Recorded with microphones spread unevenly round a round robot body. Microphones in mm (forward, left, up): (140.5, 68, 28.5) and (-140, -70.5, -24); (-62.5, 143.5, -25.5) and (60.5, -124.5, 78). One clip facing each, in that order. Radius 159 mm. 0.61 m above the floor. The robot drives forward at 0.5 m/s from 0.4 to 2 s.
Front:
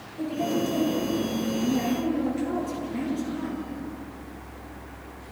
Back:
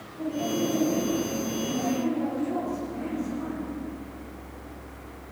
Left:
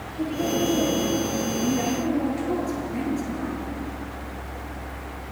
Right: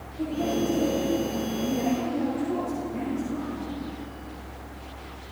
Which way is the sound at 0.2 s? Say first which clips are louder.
Front 1 dB, left 2 dB; 60° left.